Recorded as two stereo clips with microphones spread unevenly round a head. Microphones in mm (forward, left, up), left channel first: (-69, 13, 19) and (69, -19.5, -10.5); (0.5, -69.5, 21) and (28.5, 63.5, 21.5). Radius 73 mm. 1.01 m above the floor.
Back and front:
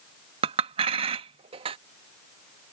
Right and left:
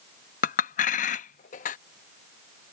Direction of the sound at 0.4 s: 70° right.